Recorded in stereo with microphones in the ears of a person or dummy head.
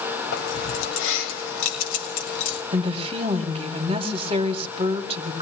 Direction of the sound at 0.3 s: 75° left (ahead or behind).